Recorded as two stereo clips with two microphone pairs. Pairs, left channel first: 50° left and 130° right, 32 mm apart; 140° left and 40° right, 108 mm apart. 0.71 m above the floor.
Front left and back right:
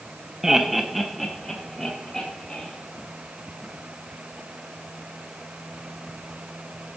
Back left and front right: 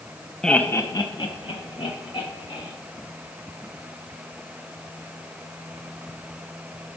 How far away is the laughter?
About 0.8 m.